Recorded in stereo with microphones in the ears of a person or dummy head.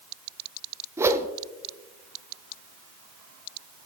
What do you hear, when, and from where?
1.0 s a whoosh: 20° right (ahead or behind), 0.6 m